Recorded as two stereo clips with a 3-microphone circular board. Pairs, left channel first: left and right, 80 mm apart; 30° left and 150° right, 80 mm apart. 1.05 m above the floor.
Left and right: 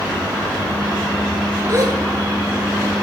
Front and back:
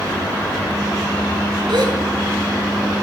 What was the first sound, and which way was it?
A gasp, 130° right.